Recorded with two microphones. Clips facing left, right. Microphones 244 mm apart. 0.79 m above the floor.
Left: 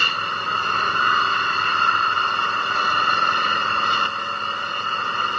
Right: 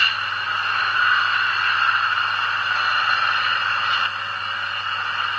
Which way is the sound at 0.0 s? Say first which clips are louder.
Left 5 dB; 50° left (ahead or behind).